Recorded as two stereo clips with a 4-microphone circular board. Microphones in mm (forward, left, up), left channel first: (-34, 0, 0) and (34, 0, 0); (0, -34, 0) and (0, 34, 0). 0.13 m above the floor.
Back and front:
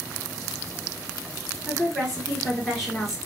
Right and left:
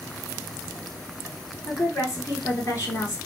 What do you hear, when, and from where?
1.7 s a woman speaking: 90° right, 1.8 m